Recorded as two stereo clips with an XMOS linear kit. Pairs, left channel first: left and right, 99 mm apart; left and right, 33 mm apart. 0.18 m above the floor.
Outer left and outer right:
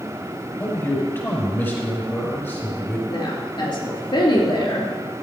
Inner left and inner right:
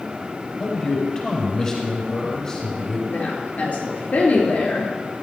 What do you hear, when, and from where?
0.6 s a man speaking: 20° left (ahead or behind), 5.5 m
3.1 s a woman speaking: 50° left (ahead or behind), 3.5 m